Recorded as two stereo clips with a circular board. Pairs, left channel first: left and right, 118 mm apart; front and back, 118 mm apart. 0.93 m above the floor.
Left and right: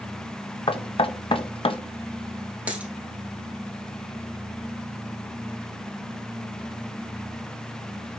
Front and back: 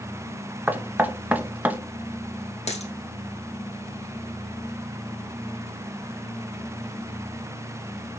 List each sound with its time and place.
0.7 s knocking: 110° left, 0.8 m
2.7 s a dropped coin: 15° right, 2.5 m